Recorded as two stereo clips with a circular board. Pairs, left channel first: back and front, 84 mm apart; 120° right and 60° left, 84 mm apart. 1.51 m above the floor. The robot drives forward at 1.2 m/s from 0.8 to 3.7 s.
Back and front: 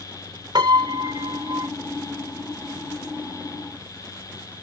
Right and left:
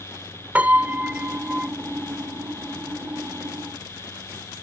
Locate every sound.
0.6 s a piano: 10° right; by 1.7 s 15° right